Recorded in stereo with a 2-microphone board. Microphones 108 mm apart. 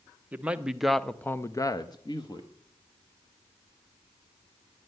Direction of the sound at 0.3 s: 15° right (ahead or behind).